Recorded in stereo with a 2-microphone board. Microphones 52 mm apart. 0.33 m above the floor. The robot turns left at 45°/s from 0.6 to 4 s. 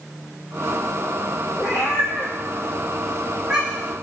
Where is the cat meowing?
80° left, 2.5 m; by 3.9 s 25° right (ahead or behind), 2.5 m.